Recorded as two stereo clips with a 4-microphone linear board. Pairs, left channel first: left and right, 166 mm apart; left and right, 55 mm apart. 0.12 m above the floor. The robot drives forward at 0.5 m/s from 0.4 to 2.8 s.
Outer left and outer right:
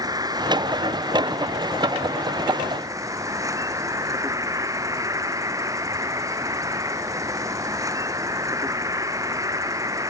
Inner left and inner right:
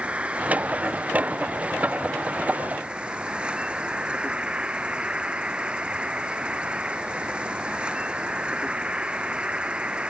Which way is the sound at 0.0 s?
25° right (ahead or behind).